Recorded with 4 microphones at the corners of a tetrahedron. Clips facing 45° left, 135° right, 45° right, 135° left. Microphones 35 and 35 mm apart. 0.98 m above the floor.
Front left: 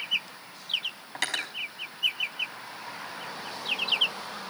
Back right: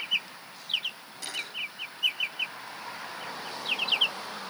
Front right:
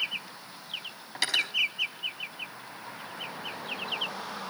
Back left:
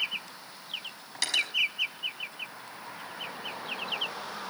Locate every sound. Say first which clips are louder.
1.1 s cutlery clinking: front left 5 dB, front right 1 dB; 30° left, 5 m